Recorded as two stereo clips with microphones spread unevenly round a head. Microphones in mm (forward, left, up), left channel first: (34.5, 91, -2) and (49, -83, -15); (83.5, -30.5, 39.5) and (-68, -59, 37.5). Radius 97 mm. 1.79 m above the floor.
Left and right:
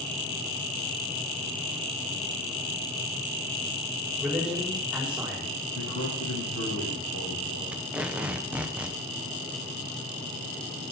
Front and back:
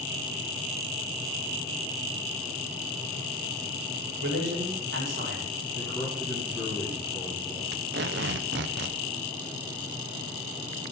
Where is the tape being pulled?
170° right, 1.0 m.